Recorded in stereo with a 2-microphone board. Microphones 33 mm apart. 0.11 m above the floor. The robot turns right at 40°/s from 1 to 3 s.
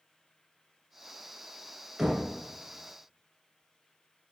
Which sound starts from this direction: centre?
Knocking, at 2.0 s.